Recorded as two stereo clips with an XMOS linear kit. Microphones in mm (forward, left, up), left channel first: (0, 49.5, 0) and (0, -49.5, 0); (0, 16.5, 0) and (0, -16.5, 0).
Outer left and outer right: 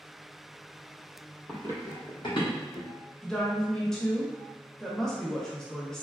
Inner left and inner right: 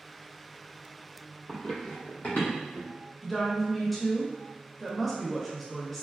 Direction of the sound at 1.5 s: 10° left (ahead or behind).